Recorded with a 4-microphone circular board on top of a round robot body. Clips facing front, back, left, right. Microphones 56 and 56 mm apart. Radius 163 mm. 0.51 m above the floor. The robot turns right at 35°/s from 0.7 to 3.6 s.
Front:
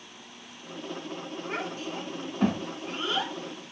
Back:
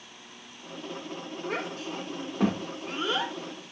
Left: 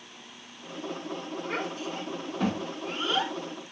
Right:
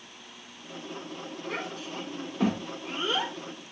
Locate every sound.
1.4 s a child speaking: 155° left, 1.2 m; by 3.3 s 135° right, 1.2 m